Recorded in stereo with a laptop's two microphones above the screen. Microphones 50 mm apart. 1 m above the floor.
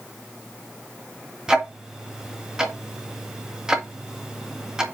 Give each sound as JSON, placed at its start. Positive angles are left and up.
{"t": 1.5, "sound": "ticking", "side_deg": -15, "distance_m": 1.8}